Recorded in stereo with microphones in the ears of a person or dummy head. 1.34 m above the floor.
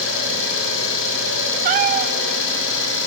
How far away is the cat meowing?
About 1.2 m.